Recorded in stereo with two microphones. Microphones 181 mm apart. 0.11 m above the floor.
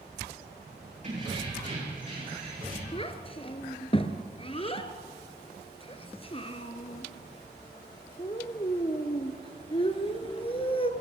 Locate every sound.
1.0 s keys jangling: 40° right (ahead or behind), 5.5 m; by 2.8 s 55° right (ahead or behind), 5.5 m
2.9 s a child speaking: 30° left (ahead or behind), 0.9 m